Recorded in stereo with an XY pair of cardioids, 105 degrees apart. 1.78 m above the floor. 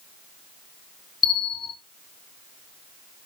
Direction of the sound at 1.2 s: 40° left.